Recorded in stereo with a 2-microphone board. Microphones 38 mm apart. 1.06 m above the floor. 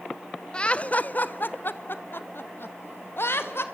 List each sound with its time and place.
0.5 s laughter: 25° left (ahead or behind), 0.6 m; by 3.6 s 70° left (ahead or behind), 1.9 m